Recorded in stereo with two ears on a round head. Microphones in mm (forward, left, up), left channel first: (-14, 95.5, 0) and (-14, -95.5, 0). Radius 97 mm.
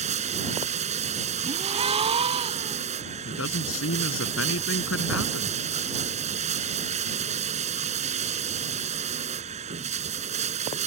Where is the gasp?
25° right (ahead or behind).